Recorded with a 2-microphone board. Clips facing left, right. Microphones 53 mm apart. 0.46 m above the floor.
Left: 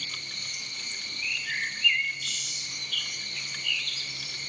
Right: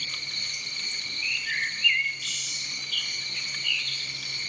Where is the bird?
10° right (ahead or behind), 0.5 m.